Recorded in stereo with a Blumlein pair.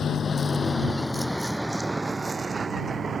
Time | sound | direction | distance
0.0 | a vehicle | 20° left | ?